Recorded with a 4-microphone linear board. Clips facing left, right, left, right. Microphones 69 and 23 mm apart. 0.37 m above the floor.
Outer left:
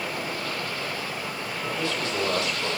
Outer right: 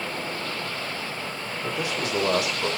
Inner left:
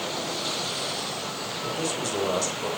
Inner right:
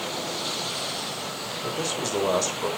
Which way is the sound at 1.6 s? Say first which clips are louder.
Outer right 1 dB, inner right 1 dB; 20° right (ahead or behind).